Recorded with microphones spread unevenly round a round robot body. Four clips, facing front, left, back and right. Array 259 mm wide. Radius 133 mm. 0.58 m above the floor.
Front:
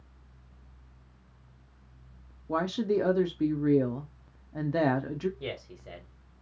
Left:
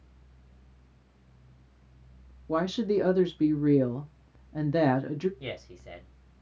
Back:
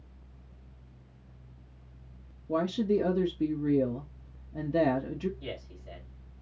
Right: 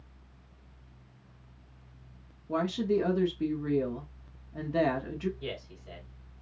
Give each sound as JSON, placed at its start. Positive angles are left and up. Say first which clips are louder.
{"t": 2.5, "sound": "a woman speaking", "louder": "left 2 dB, even", "azimuth_deg": 90, "distance_m": 0.6}
{"t": 5.4, "sound": "a man speaking", "louder": "even, front 2 dB", "azimuth_deg": 30, "distance_m": 1.9}